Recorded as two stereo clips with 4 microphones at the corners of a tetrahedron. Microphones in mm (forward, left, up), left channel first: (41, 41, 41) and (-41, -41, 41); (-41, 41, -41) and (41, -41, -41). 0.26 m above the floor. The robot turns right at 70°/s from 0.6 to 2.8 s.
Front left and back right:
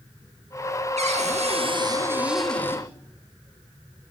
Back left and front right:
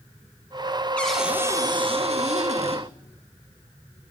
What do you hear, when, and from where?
1.0 s a cupboard door: 145° right, 5 m; by 2.9 s 20° right, 5 m